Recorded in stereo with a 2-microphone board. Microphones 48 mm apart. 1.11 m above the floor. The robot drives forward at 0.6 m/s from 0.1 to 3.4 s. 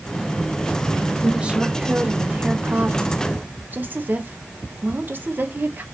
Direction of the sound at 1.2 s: 20° right (ahead or behind).